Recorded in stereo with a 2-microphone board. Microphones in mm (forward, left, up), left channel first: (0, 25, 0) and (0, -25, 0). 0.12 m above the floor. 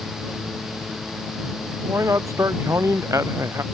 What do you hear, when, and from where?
1.9 s a man speaking: 80° right